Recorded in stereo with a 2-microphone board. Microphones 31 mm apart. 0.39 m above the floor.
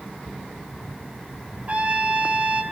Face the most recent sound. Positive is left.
turn(degrees=-50)  # may be behind; listen again after turning